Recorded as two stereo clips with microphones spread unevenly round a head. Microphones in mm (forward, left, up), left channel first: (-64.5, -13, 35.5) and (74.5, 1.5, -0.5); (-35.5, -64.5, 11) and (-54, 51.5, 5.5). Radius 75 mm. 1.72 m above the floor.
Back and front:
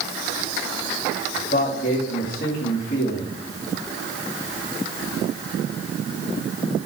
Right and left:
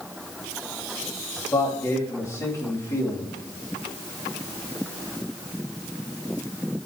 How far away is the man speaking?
About 3 m.